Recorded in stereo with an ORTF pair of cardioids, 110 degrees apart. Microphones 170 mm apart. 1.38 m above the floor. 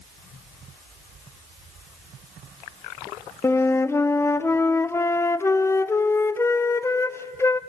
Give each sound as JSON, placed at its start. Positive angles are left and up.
{"t": 3.4, "sound": "a flute", "azimuth_deg": 15, "distance_m": 0.6}